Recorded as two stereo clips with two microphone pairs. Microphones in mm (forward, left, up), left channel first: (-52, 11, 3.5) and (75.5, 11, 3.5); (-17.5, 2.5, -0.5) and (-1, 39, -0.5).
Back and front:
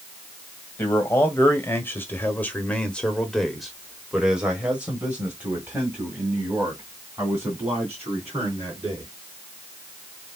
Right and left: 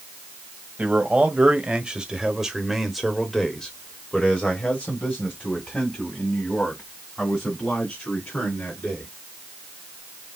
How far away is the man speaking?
About 1.9 m.